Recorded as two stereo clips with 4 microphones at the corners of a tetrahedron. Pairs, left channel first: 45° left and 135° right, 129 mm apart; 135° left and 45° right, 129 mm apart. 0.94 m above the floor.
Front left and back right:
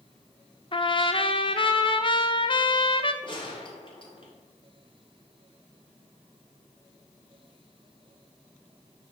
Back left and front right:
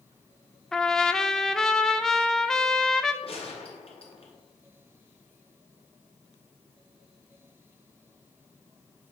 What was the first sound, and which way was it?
A trumpet, 50° left.